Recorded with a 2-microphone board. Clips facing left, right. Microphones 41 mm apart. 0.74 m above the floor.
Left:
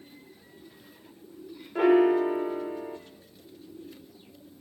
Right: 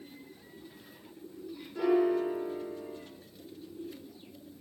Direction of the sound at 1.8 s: 55° left (ahead or behind).